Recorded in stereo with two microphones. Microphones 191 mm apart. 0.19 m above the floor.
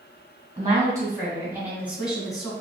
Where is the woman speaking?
25° right (ahead or behind), 1.5 m; by 2.5 s centre (ahead or behind), 1.6 m.